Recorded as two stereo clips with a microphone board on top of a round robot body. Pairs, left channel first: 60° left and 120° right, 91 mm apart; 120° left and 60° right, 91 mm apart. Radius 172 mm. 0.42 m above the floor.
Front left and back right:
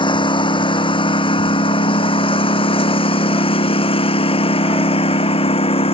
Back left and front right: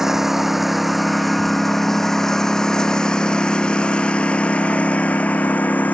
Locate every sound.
0.0 s a lawn mower: 25° left; by 5.9 s 45° left